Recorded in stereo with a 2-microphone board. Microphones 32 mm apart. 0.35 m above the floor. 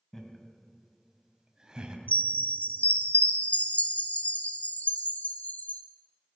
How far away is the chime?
About 0.8 m.